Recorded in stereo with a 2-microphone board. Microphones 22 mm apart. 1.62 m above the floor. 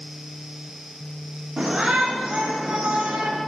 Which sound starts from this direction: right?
A shout, at 1.6 s.